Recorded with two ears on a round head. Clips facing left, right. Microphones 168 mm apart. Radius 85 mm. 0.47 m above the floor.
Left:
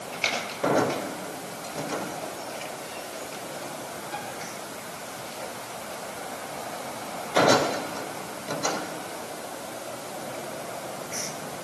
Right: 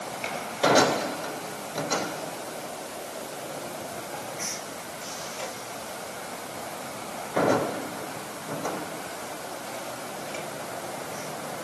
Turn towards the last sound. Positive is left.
No sound to turn to.